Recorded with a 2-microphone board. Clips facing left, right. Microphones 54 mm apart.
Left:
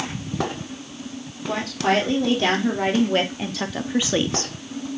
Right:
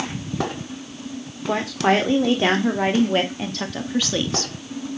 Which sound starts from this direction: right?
A woman speaking, at 1.5 s.